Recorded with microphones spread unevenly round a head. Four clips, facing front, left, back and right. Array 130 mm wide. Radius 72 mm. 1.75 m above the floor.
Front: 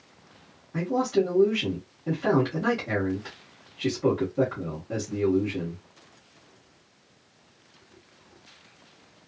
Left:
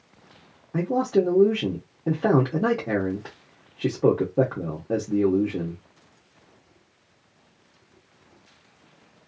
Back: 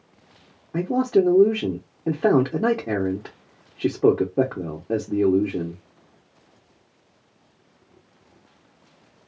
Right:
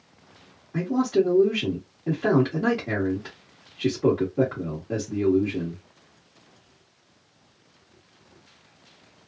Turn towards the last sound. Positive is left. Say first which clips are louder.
# even, back 5 dB
turn(degrees=155)